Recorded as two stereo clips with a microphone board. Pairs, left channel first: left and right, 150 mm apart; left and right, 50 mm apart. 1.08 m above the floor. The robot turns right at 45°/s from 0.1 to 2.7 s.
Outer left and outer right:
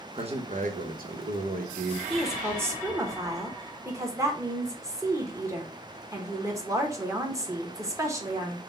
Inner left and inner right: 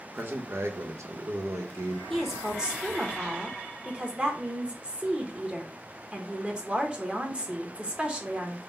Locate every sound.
0.1 s a man speaking: 140° right, 0.8 m; by 2.0 s 60° right, 0.8 m
2.1 s a woman speaking: 5° left (ahead or behind), 0.9 m; by 8.6 s 20° right (ahead or behind), 0.9 m